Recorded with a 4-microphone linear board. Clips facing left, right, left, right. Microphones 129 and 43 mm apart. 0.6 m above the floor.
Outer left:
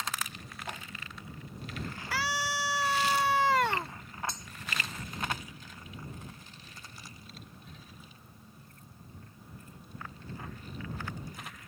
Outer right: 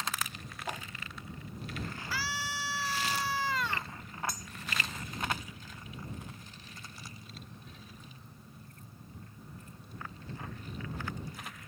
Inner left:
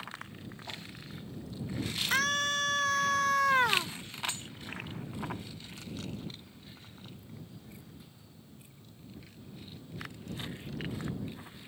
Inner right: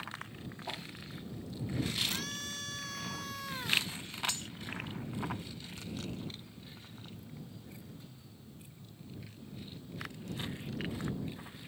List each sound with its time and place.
0.7 s a whoosh: 15° right (ahead or behind)
2.1 s a scream: 70° left (ahead or behind)
4.3 s cutlery clinking: 25° left (ahead or behind)